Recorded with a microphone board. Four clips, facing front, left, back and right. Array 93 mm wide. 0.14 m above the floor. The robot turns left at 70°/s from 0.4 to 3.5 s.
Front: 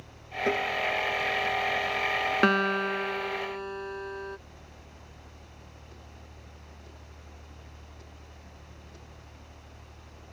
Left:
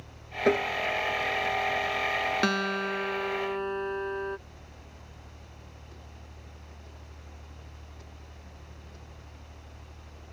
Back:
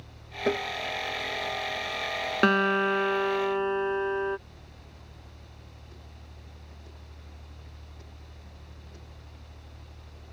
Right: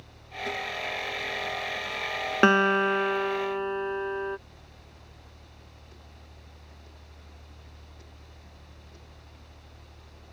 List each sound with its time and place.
0.5 s tapping: 100° left; by 0.7 s 85° left
2.4 s a guitar: 90° right; by 4.4 s 165° right